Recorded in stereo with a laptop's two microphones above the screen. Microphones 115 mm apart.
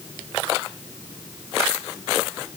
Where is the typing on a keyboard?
I don't hear typing on a keyboard.